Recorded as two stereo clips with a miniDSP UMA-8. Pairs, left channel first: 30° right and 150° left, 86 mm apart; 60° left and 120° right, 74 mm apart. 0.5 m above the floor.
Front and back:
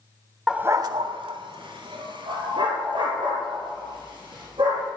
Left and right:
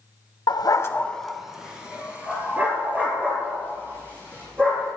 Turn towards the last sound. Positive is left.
turn(degrees=180)